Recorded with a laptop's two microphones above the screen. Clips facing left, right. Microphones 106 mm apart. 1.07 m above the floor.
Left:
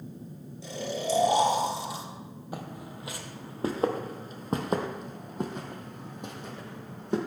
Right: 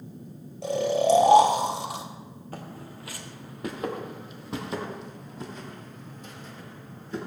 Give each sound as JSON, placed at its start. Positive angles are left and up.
{"t": 0.6, "sound": "snoring", "side_deg": -70, "distance_m": 1.6}
{"t": 2.5, "sound": "footsteps", "side_deg": 15, "distance_m": 1.9}